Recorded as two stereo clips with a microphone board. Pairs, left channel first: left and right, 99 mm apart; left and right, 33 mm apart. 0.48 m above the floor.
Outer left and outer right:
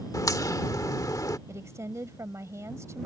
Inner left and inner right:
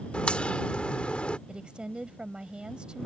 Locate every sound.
0.1 s a crack: 40° left (ahead or behind)
1.5 s a woman speaking: 30° right (ahead or behind)